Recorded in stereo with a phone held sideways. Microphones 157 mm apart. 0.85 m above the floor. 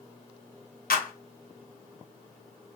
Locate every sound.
0.9 s a clap: 80° left, 0.7 m